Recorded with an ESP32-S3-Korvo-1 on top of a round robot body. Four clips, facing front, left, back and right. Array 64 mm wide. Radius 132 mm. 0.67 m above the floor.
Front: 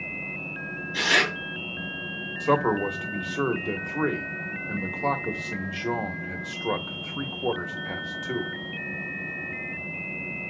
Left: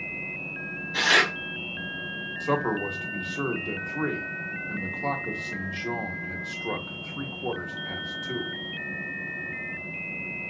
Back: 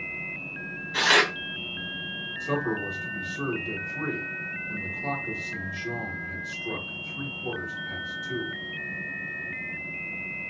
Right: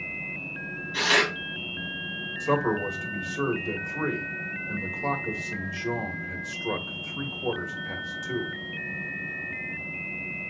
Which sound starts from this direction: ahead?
A man speaking, at 2.4 s.